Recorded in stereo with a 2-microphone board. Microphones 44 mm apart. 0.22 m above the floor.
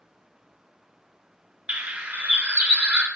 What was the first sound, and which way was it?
A bird, 20° right (ahead or behind).